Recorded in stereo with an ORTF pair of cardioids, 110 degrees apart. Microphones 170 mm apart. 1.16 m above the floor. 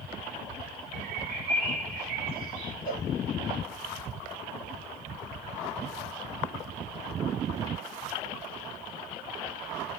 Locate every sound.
0.9 s a bird: 65° right, 1.9 m
2.9 s a cowbell: 65° right, 3.5 m